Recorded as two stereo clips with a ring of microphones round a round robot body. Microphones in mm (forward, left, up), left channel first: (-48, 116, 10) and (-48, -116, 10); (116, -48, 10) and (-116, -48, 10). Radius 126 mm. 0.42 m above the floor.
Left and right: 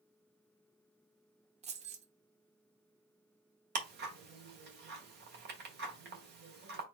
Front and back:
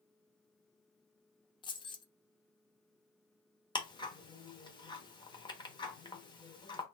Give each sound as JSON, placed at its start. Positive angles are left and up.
{"t": 1.6, "sound": "keys jangling", "azimuth_deg": -55, "distance_m": 0.8}
{"t": 3.8, "sound": "ticking", "azimuth_deg": -65, "distance_m": 1.3}